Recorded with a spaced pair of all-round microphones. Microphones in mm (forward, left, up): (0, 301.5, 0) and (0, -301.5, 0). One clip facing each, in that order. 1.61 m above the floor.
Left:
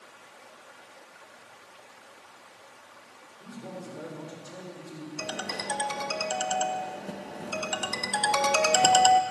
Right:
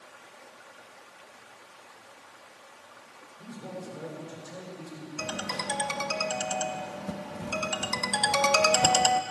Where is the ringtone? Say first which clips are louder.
Right 3 dB; 30° right (ahead or behind), 0.9 m.